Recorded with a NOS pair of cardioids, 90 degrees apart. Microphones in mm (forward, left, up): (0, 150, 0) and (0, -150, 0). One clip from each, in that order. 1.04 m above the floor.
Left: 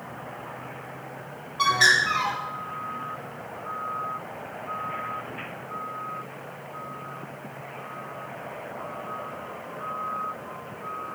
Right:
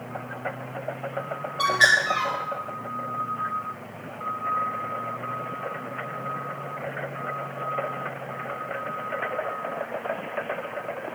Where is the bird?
5° right, 1.5 m.